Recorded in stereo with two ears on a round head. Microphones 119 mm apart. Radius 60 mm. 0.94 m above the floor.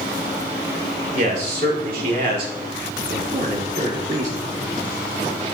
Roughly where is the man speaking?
Right.